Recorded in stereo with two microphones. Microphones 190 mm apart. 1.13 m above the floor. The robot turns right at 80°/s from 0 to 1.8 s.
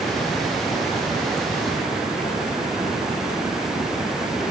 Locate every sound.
Only background noise.